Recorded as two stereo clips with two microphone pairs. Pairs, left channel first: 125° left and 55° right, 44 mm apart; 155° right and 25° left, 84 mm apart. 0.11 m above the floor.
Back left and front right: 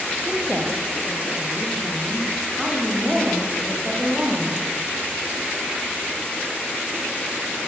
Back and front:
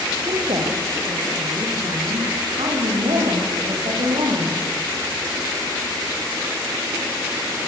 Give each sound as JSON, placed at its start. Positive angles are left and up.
{"t": 0.3, "sound": "a woman speaking", "azimuth_deg": 20, "distance_m": 6.5}